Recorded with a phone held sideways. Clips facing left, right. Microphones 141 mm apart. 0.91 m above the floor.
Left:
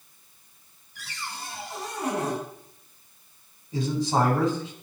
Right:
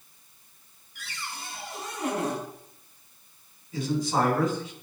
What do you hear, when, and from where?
0.9 s a cupboard door: 35° left (ahead or behind), 4.5 m
3.7 s a man speaking: 30° left (ahead or behind), 4 m